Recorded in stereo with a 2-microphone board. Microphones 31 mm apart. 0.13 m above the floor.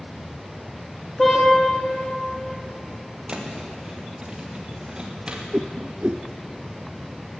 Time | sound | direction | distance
1.2 | a car horn | 5° left (ahead or behind) | 8 m
3.3 | a thud | 25° right (ahead or behind) | 4.5 m
5.5 | a whoosh | 50° right (ahead or behind) | 0.6 m